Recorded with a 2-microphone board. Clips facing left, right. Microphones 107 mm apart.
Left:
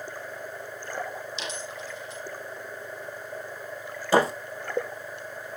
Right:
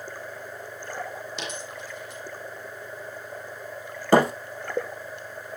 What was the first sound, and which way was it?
A dropped coin, 55° right (ahead or behind).